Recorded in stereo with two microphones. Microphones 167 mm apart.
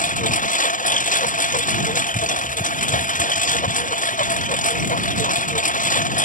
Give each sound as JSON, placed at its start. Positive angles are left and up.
{"t": 0.0, "sound": "a lawn mower", "side_deg": 55}